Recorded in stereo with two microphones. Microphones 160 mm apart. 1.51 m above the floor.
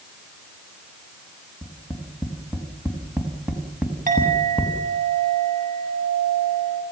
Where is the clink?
60° right (ahead or behind), 7.5 m.